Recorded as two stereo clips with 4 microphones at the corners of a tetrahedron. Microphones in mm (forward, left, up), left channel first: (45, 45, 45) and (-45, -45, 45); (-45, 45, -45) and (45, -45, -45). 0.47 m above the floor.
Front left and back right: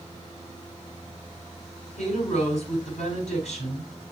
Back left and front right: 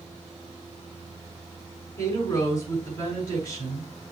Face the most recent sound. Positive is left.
turn(degrees=75)